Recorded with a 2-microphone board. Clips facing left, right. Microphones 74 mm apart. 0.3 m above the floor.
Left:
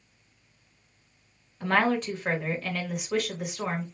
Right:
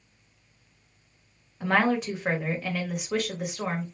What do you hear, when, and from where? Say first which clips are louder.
1.6 s a woman speaking: right 1 dB; 10° right (ahead or behind), 1.3 m